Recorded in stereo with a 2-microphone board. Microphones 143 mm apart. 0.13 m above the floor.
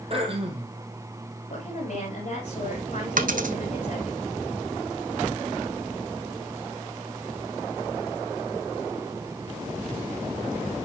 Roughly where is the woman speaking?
Left.